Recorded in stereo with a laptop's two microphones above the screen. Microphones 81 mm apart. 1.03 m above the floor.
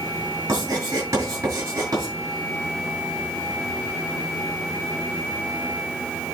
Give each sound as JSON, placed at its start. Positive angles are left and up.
{"t": 0.5, "sound": "writing", "side_deg": -40, "distance_m": 7.0}